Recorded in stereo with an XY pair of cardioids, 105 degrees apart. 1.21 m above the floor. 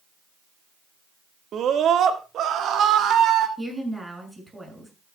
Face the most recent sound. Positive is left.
turn(degrees=-15)